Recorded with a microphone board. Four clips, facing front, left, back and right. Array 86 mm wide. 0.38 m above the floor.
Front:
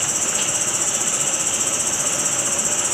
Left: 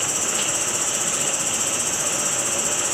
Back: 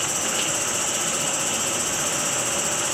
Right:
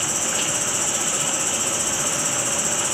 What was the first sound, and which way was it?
An insect, straight behind.